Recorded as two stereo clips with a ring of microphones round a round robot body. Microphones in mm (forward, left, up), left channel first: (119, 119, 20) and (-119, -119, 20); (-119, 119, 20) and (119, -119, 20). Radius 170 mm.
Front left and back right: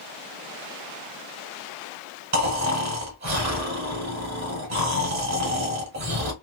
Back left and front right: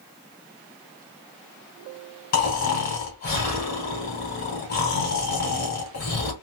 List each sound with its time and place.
2.3 s snoring: 165° right, 1.8 m